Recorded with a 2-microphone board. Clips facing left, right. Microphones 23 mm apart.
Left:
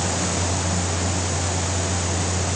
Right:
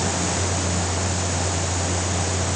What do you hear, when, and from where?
Only background noise.